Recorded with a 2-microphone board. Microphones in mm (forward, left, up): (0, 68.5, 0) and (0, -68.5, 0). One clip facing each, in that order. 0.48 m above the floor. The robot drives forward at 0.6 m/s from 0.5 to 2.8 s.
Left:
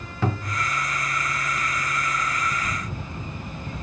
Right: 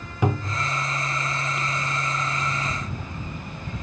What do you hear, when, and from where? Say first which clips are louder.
0.2 s a cupboard door: right 2 dB; 15° right (ahead or behind), 0.6 m